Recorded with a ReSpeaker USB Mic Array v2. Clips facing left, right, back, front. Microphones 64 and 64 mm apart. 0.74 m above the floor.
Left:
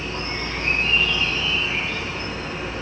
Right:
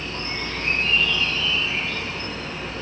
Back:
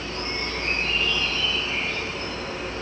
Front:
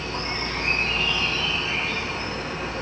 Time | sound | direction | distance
0.0 | an insect | 10° left | 3.5 m